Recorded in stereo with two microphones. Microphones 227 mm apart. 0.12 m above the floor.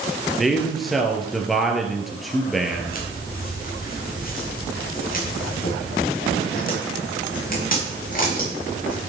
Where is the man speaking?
Centre (ahead or behind), 3 m.